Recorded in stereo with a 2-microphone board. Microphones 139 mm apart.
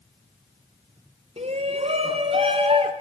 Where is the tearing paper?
No tearing paper in this recording.